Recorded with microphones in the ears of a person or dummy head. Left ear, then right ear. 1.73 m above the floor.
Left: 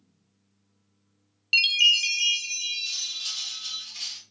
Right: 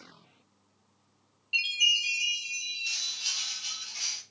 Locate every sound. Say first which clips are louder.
1.5 s a chime: left 6 dB; 70° left (ahead or behind), 0.9 m
2.9 s cutlery clinking: left 1 dB; 5° left (ahead or behind), 1.6 m